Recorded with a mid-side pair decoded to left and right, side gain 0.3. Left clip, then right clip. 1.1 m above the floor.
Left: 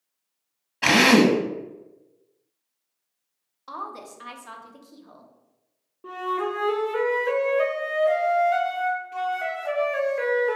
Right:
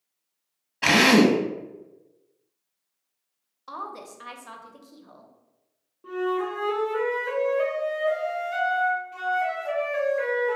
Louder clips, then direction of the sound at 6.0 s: Even; 55° left.